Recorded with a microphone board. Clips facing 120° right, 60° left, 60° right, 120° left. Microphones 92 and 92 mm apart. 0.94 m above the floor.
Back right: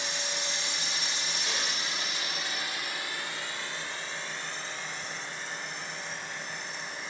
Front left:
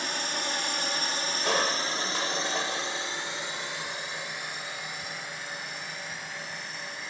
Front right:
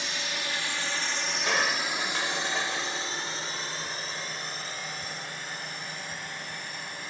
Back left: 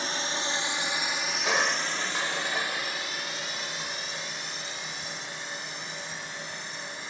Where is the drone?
80° left; by 7.1 s 25° right.